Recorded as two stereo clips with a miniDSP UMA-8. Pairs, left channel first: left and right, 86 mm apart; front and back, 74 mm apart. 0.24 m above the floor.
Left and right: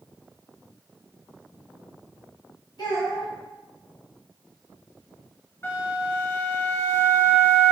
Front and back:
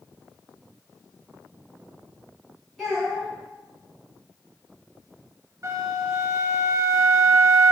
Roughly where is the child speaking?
Left.